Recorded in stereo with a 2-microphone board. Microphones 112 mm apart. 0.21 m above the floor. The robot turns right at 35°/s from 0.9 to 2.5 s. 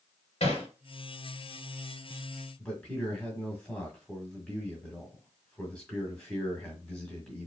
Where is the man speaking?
10° left (ahead or behind), 1.7 m.